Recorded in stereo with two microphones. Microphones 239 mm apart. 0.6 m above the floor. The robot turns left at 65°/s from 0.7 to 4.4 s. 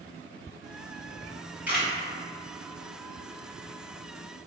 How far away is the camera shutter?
About 1.4 m.